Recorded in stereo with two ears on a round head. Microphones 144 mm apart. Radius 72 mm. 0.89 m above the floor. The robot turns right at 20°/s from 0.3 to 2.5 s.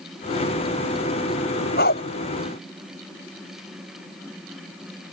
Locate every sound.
1.8 s a dog barking: 60° left (ahead or behind); by 2.0 s 65° left (ahead or behind)